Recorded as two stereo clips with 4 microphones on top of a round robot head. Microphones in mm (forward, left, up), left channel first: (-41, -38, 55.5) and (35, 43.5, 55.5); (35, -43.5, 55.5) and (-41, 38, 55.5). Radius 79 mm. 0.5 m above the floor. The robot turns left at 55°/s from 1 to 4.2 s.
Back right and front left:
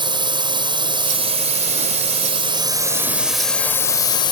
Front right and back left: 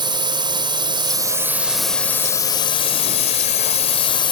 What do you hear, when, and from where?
0.0 s a drone: 90° left; by 4.3 s 85° right